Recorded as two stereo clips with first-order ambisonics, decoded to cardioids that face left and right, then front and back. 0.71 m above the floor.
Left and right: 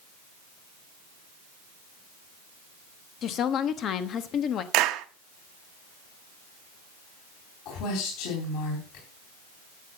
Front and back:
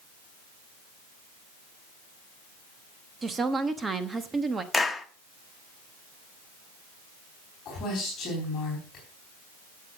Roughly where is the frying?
No frying in this recording.